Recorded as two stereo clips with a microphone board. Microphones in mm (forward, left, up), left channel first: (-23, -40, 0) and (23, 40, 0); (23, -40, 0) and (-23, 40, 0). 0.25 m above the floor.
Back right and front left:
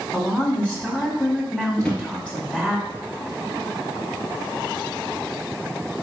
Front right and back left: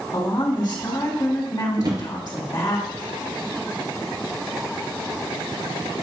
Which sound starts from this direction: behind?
A drawer, at 1.8 s.